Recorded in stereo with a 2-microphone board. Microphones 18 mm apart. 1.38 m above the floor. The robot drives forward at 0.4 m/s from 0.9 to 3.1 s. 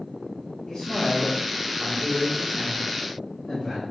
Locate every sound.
0.7 s a man speaking: 50° left (ahead or behind), 1.8 m; by 3.9 s 35° left (ahead or behind), 2.5 m